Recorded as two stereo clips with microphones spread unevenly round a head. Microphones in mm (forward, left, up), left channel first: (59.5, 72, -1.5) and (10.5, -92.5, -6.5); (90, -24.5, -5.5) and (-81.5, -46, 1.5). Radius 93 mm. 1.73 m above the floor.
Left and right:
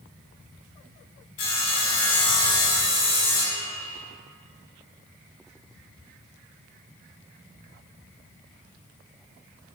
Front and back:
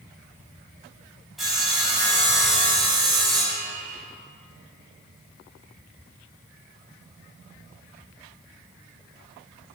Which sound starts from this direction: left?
Sawing, at 1.4 s.